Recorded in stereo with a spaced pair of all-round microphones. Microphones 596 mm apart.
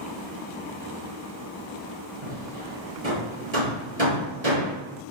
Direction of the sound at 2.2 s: 80° right.